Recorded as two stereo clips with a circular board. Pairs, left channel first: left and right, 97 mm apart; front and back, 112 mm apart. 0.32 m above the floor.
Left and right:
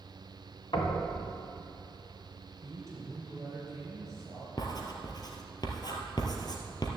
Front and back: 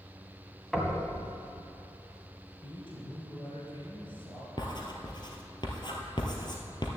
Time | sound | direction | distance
0.7 | knocking | 85° left | 2 m
2.6 | a man speaking | 30° right | 4 m
4.6 | writing | 45° left | 1.9 m